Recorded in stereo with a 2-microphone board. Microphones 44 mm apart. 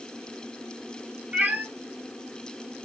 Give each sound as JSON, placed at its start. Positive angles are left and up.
{"t": 1.3, "sound": "a cat meowing", "side_deg": -35, "distance_m": 0.9}